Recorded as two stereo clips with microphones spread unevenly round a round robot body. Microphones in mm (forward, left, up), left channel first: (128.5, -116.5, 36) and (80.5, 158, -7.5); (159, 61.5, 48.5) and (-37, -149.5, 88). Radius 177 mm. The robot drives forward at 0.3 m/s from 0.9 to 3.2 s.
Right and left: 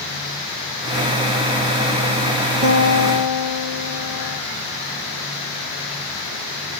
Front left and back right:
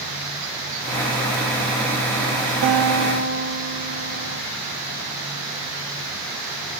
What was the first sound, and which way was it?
A guitar, 170° left.